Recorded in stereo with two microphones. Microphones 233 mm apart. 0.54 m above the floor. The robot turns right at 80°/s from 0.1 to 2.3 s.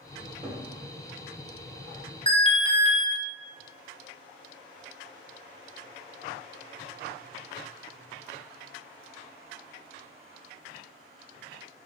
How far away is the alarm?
About 0.5 m.